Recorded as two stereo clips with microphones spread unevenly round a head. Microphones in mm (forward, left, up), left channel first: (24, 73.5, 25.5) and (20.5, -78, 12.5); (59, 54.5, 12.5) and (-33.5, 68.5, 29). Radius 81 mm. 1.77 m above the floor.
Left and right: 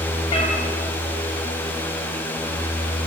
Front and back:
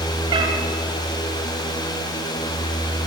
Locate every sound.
0.3 s a cat meowing: 145° left, 3.5 m